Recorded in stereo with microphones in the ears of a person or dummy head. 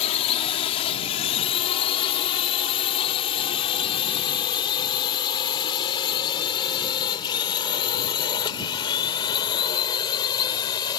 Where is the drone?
35° left (ahead or behind); by 11.0 s 25° left (ahead or behind).